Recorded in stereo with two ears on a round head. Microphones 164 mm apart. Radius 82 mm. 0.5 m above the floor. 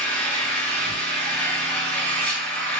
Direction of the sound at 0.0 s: 10° left (ahead or behind).